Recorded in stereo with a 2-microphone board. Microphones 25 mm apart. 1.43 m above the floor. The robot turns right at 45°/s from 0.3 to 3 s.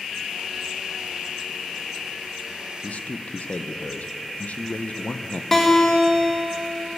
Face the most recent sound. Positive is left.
turn(degrees=15)  # may be behind; listen again after turning